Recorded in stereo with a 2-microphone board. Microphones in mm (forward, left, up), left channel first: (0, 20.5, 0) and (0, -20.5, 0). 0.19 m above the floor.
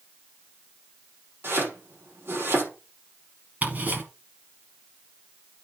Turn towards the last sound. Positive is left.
turn(degrees=-40)  # may be behind; listen again after turning